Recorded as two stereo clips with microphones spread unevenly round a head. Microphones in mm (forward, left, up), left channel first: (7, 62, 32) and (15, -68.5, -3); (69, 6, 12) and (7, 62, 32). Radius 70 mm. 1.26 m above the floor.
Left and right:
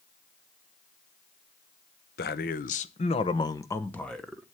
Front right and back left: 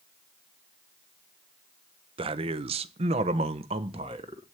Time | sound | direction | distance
2.2 | a man speaking | 120° left | 1.0 m